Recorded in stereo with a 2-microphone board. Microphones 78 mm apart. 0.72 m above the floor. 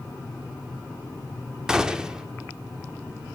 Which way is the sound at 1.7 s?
10° right (ahead or behind).